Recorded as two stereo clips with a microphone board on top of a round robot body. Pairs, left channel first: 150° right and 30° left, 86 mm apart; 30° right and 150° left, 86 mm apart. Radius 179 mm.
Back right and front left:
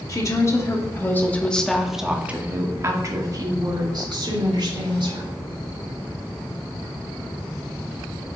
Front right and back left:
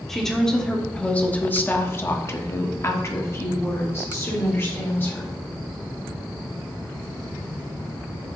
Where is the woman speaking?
115° right, 1.8 m; by 5.3 s 30° left, 2.5 m.